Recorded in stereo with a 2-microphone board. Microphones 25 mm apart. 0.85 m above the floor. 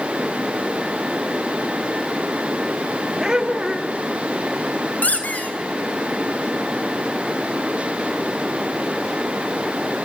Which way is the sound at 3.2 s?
20° right (ahead or behind).